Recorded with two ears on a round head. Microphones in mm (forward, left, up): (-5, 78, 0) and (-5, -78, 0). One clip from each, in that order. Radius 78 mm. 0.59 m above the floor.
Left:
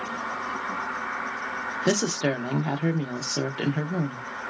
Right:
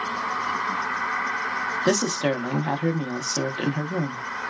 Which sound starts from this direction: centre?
A woman speaking, at 1.9 s.